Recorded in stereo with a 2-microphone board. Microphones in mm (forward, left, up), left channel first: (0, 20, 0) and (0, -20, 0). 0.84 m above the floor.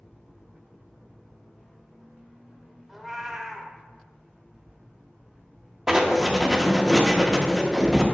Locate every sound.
2.9 s a cat meowing: 5° right (ahead or behind), 0.8 m
5.9 s writing: 10° right (ahead or behind), 0.7 m